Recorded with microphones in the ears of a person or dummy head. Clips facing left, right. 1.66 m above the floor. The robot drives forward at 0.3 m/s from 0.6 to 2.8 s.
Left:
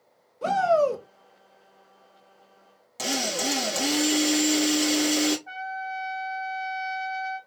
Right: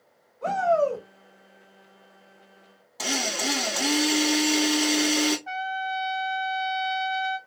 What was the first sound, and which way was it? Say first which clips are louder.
A shout: left 1 dB; 50° left (ahead or behind).